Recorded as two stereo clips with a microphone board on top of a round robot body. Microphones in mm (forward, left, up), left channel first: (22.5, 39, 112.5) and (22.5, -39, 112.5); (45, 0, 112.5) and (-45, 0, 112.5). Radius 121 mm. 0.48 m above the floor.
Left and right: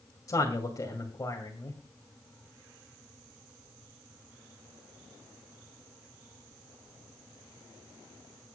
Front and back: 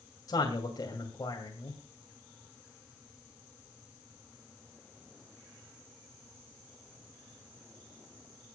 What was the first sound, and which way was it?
A man speaking, 45° left.